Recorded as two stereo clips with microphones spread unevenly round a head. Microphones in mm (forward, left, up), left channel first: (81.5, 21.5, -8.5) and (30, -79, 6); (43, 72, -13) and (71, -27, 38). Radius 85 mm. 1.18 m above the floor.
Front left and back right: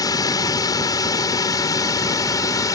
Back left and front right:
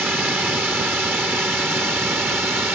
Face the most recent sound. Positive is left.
turn(degrees=5)